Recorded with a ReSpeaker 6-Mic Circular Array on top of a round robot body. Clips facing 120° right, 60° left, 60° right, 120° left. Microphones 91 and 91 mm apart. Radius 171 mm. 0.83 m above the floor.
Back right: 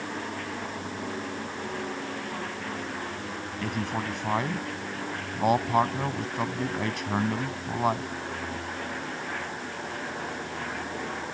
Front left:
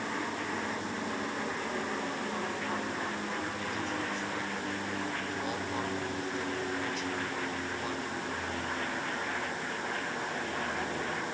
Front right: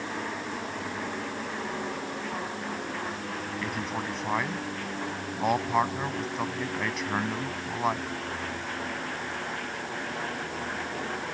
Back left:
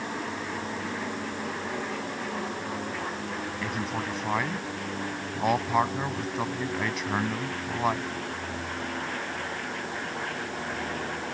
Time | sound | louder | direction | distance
3.6 | a man speaking | back right 4 dB, back left 1 dB | 150° right | ?